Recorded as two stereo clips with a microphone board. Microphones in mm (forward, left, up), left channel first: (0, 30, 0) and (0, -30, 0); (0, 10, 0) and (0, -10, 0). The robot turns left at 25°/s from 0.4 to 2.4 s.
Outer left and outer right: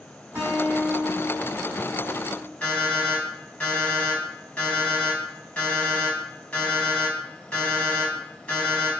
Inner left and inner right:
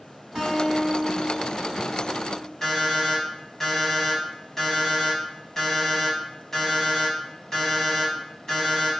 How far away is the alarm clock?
About 0.9 m.